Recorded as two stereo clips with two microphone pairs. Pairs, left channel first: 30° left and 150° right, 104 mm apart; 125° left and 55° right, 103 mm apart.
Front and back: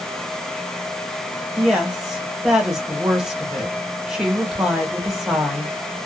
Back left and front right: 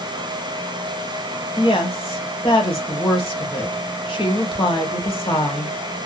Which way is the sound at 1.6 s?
125° left.